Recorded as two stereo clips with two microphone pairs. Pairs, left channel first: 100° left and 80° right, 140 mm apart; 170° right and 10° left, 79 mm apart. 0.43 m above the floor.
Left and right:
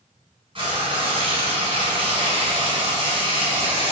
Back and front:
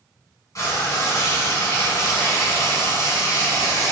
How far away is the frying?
About 2.0 m.